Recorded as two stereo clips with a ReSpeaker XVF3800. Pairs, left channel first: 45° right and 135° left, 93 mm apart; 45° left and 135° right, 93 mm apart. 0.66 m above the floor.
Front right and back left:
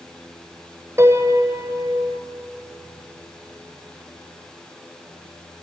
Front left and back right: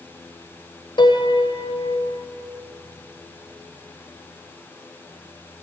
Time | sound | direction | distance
1.0 | a piano | 75° left | 1.9 m